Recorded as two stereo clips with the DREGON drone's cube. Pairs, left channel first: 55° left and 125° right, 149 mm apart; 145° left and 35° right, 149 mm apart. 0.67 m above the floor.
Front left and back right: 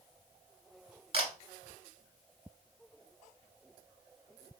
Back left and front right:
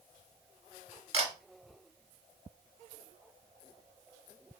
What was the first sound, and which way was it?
A camera shutter, 80° right.